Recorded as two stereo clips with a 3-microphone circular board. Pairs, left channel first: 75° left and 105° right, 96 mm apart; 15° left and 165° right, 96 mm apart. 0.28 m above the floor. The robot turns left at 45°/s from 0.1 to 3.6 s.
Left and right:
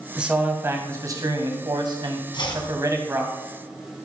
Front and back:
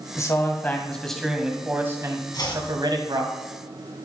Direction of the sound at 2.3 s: 55° left.